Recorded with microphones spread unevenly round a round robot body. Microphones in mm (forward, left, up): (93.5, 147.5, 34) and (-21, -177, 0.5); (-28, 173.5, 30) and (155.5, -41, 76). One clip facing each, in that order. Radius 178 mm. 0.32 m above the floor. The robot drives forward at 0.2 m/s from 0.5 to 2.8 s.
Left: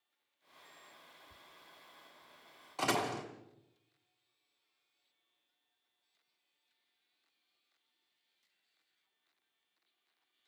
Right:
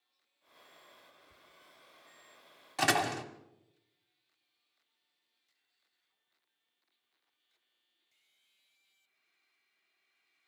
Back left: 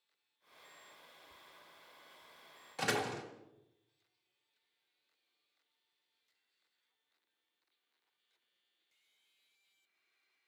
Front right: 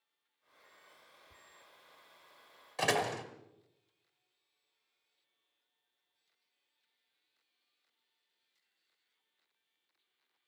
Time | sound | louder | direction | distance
1.3 | whispering | left 1 dB, back left 1 dB | 25° left | 1.2 m
2.8 | a door slam | right 2 dB, front right 3 dB | 155° right | 1.9 m